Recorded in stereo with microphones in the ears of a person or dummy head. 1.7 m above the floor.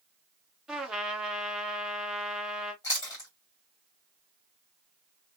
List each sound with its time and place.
0.7 s a trumpet: 5° right (ahead or behind), 0.7 m
2.8 s chewing: 15° left (ahead or behind), 1.7 m